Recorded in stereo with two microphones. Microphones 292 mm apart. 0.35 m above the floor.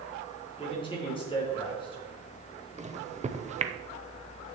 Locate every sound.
0.6 s a man speaking: 15° left (ahead or behind), 3.5 m
2.8 s a microwave: 25° right (ahead or behind), 0.7 m